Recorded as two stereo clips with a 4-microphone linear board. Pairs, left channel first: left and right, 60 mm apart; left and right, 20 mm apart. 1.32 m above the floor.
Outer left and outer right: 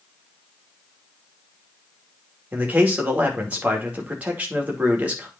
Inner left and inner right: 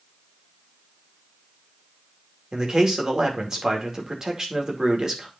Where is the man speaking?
25° right (ahead or behind), 2.5 m.